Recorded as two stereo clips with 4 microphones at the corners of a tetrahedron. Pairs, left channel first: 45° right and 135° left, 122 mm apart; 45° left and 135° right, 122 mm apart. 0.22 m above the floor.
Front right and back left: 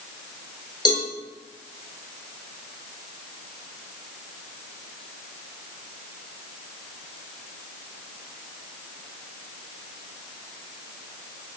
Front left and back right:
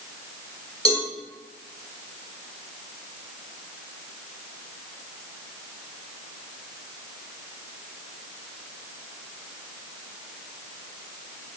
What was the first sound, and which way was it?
A cowbell, 5° left.